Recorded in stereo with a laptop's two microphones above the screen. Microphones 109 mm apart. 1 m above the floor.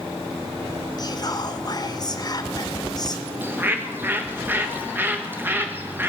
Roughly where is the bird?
Centre.